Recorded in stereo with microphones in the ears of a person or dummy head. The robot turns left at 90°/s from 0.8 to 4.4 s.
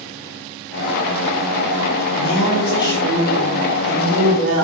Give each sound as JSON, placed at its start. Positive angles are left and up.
{"t": 2.1, "sound": "a woman speaking", "azimuth_deg": 90, "distance_m": 2.0}